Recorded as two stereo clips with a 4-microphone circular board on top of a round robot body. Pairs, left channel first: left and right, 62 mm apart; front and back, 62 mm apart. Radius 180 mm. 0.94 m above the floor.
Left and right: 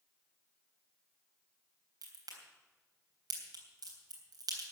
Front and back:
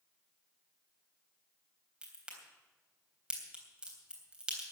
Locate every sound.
2.0 s a crack: 105° right, 3.5 m